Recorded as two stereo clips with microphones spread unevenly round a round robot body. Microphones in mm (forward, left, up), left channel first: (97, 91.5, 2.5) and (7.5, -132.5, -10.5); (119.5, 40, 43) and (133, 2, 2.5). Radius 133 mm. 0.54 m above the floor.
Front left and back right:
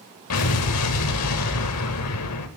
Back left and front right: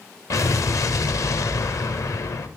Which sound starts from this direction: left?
An explosion, at 0.3 s.